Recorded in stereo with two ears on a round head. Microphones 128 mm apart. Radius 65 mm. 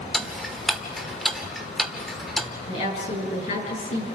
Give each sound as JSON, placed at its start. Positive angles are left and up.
{"t": 0.1, "sound": "ticking", "side_deg": 0, "distance_m": 1.1}
{"t": 2.7, "sound": "a woman speaking", "side_deg": 55, "distance_m": 8.0}